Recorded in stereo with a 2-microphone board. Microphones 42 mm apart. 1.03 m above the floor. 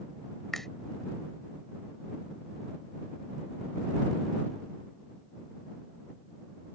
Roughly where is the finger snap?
Centre.